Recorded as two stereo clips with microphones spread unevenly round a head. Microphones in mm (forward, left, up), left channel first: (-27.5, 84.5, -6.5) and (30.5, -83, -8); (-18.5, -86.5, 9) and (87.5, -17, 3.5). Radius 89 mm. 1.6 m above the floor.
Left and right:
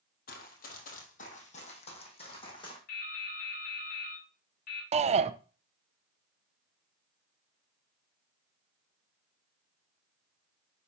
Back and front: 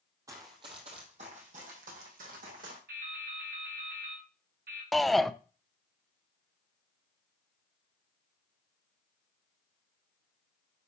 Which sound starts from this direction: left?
Running footsteps, at 0.3 s.